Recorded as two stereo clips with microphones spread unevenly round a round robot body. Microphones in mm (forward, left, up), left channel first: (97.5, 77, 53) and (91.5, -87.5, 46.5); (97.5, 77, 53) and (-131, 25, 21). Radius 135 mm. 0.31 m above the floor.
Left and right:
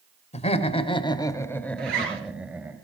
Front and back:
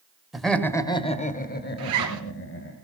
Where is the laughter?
115° left, 1.6 m; by 2.8 s 15° right, 2 m.